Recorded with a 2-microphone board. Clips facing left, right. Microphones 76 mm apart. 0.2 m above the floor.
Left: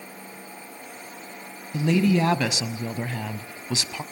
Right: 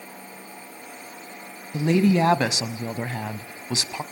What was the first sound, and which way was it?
A woman speaking, 25° right (ahead or behind).